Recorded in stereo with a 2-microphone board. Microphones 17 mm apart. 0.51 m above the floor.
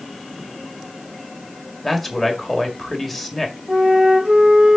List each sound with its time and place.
1.8 s a man speaking: centre (ahead or behind), 1.9 m
3.7 s a flute: 80° right, 4 m